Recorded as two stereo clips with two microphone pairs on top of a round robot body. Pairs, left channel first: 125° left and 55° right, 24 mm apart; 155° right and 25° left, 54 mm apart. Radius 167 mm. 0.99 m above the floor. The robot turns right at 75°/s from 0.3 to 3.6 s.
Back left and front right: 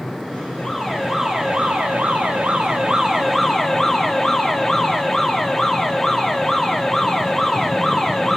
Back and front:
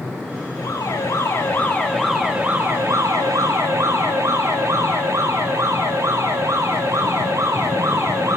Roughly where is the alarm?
Behind.